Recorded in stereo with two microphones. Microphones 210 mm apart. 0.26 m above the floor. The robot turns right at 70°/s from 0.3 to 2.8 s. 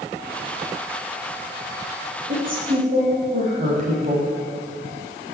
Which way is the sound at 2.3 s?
35° right (ahead or behind).